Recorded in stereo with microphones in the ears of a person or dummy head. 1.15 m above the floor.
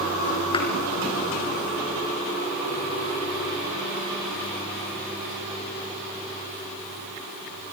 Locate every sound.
0.5 s a thud: 25° left (ahead or behind), 4 m